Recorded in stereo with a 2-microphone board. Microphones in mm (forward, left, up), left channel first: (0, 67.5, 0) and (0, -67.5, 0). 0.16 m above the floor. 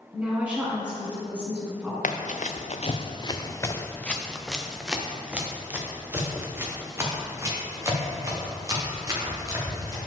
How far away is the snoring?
No snoring in this recording.